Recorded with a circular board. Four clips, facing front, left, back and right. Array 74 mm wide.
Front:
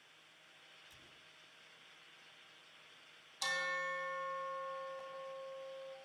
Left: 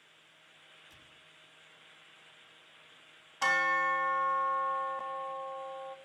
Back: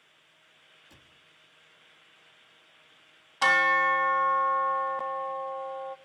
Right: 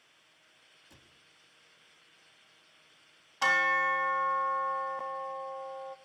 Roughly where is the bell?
Behind.